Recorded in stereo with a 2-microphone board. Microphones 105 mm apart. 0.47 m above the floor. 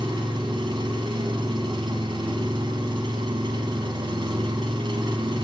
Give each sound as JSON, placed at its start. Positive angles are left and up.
{"t": 0.0, "sound": "an engine running", "side_deg": -50, "distance_m": 1.2}